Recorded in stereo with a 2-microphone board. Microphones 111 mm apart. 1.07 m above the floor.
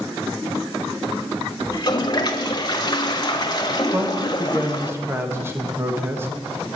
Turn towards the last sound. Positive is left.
turn(degrees=-20)  # may be behind; listen again after turning